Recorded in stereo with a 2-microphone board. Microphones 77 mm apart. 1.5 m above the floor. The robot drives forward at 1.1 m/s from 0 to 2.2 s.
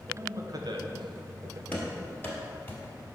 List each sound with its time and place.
0.1 s a man speaking: 35° right (ahead or behind), 1.2 m; by 1.6 s 45° right (ahead or behind), 1.0 m
1.7 s running footsteps: 25° left (ahead or behind), 1.9 m